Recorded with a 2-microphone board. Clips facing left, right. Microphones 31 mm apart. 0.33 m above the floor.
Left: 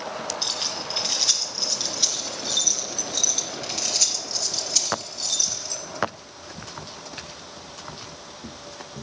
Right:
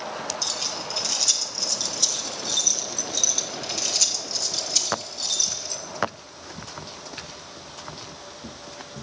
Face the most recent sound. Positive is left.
turn(degrees=0)  # may be behind; listen again after turning